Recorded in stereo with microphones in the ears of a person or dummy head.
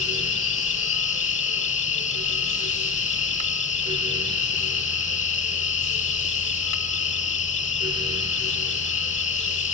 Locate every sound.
0.0 s an insect: 40° left (ahead or behind)